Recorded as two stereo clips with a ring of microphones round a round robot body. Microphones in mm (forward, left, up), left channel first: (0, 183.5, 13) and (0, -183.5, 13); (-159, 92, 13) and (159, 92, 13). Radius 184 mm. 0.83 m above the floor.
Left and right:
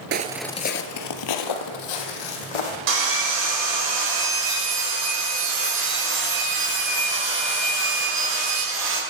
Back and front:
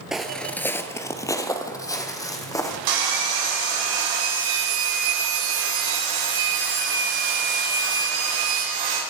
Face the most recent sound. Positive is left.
turn(degrees=-30)